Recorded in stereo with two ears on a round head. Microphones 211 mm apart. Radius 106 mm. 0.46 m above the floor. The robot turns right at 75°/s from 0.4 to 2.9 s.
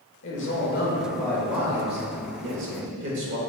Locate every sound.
0.2 s a man speaking: 100° left, 1.2 m; by 3.4 s 70° right, 1.2 m